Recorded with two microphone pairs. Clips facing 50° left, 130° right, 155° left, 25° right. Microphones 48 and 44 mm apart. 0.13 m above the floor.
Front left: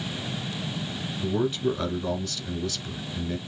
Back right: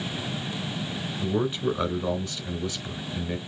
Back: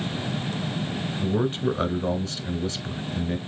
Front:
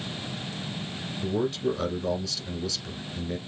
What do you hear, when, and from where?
1.2 s a man speaking: 165° left, 1.2 m